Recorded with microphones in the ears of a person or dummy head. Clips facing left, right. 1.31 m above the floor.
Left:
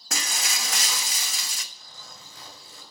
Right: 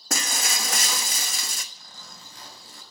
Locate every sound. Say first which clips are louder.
0.1 s breaking glass: right 3 dB; 45° right (ahead or behind), 1.1 m
1.8 s a zipper: even; 60° right (ahead or behind), 6 m